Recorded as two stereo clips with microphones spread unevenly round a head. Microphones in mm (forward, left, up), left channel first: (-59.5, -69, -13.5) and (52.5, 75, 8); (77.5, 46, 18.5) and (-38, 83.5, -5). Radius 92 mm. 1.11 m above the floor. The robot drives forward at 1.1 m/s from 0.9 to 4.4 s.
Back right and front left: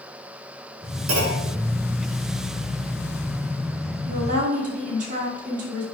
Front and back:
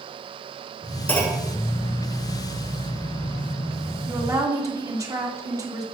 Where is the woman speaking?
90° left, 2 m; by 5.8 s 100° left, 2 m.